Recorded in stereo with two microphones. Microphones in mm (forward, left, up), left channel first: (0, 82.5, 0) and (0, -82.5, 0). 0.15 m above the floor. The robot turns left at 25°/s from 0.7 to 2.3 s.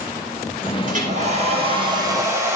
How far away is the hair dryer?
About 8 m.